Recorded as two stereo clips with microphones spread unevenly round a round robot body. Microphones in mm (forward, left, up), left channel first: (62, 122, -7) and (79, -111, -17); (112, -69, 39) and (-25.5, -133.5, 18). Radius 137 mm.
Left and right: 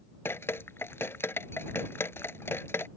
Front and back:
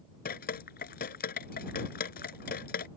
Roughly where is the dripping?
Ahead.